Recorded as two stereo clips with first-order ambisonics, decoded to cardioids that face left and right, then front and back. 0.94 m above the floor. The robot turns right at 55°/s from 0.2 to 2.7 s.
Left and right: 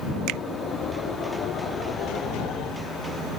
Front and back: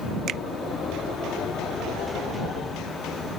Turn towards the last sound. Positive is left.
turn(degrees=10)